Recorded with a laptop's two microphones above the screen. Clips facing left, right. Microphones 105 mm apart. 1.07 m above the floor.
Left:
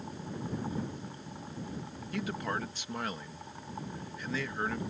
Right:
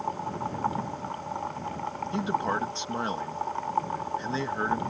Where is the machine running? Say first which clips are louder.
Right 9 dB; 75° right (ahead or behind).